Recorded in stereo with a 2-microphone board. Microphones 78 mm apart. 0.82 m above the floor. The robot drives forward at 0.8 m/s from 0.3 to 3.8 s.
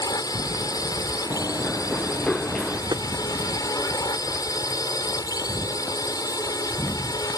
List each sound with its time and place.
0.0 s a drone: 55° left (ahead or behind); by 7.4 s 50° left (ahead or behind)
1.3 s running footsteps: 35° left (ahead or behind); by 2.8 s 5° left (ahead or behind)
2.9 s tapping: 60° right (ahead or behind)